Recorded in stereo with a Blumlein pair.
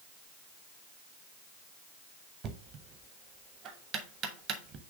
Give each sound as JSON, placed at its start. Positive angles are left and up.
{"t": 2.4, "sound": "knocking", "azimuth_deg": -30, "distance_m": 1.0}